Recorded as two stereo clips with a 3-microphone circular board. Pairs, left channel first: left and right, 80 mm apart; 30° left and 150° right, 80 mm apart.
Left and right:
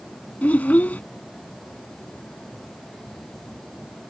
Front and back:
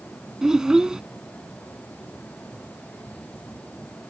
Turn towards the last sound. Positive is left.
turn(degrees=140)